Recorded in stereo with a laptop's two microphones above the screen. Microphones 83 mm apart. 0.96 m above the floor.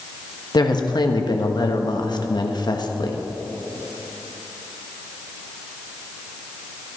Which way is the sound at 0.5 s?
60° left (ahead or behind).